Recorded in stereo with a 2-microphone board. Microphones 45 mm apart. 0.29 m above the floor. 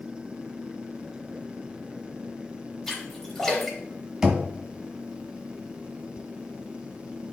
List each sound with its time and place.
2.9 s a splash: 5° left (ahead or behind), 4 m
4.2 s knocking: 10° right (ahead or behind), 1.3 m